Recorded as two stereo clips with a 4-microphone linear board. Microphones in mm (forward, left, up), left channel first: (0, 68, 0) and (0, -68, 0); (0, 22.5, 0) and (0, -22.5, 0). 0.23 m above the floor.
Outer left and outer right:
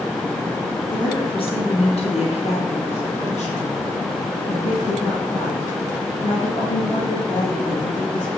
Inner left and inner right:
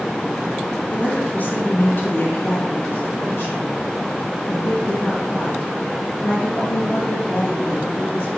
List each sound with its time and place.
0.9 s a woman speaking: 35° left (ahead or behind), 2.5 m; by 8.3 s 40° left (ahead or behind), 5.5 m